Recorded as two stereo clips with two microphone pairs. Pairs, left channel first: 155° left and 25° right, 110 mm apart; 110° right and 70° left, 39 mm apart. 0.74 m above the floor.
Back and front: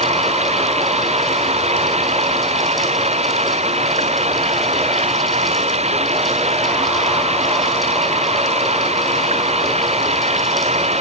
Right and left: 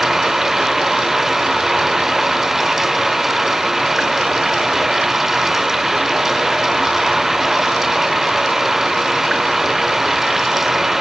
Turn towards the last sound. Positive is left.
turn(degrees=-15)